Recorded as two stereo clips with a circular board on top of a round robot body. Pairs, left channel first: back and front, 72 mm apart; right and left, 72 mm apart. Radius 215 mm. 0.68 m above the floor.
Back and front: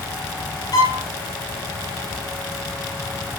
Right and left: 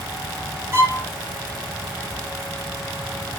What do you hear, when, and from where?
0.7 s a violin: 145° left, 5 m